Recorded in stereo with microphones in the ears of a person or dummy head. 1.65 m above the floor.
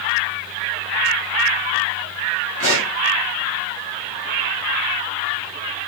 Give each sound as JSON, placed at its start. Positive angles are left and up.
{"t": 2.6, "sound": "a pop", "side_deg": 45, "distance_m": 5.5}